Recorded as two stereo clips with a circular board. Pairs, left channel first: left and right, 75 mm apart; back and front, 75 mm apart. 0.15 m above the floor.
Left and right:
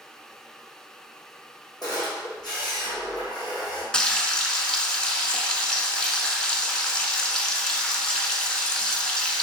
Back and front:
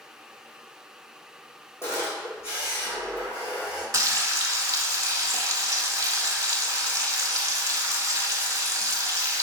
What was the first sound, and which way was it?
A camera shutter, 125° left.